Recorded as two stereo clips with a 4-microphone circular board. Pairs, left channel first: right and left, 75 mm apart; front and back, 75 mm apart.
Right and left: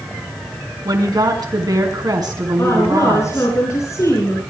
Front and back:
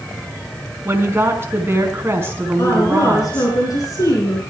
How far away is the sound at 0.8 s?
About 4.5 m.